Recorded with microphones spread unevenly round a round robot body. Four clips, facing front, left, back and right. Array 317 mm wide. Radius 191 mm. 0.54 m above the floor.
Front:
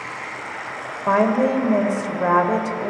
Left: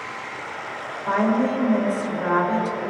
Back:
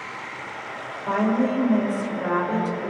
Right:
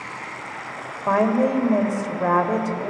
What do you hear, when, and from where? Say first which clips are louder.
0.0 s running water: left 1 dB, front 3 dB; 70° right, 3 m
1.1 s a woman speaking: right 2 dB, front 4 dB; 15° right, 3 m